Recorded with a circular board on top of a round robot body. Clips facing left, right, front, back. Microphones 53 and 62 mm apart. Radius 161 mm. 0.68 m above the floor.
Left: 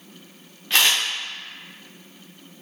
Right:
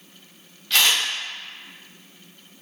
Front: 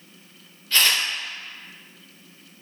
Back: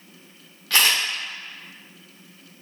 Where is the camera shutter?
155° left, 0.8 m.